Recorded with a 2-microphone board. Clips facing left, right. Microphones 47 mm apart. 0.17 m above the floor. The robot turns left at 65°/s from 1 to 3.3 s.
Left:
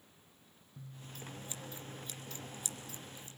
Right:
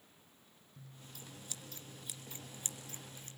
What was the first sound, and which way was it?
Scissors, 50° left (ahead or behind).